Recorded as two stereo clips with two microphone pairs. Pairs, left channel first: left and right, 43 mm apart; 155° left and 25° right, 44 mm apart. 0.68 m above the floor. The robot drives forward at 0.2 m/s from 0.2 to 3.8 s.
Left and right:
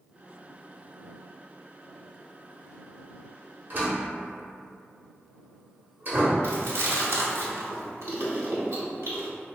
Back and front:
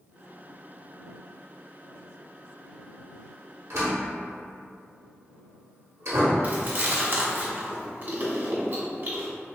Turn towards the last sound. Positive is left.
turn(degrees=-70)